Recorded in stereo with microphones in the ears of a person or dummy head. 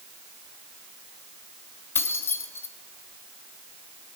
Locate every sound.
1.9 s keys jangling: 15° left (ahead or behind), 2.5 m